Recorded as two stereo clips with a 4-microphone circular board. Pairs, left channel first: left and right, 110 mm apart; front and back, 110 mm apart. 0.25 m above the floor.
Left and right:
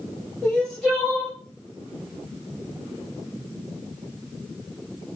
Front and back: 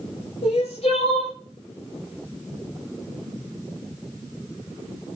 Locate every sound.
0.4 s crying: 5° left, 6 m